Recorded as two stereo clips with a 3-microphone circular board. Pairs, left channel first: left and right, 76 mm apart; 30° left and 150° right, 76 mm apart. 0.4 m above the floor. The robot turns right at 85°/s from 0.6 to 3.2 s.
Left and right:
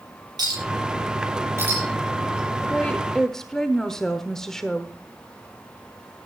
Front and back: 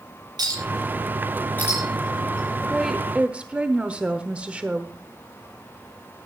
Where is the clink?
120° right, 7.5 m; by 2.6 s 50° left, 7.5 m.